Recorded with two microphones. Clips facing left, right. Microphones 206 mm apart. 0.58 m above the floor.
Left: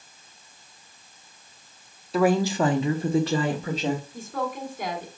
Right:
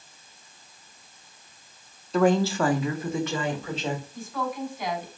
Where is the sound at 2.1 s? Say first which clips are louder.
Even; 5° left (ahead or behind), 0.6 m; by 4.0 s 40° left (ahead or behind), 1.1 m.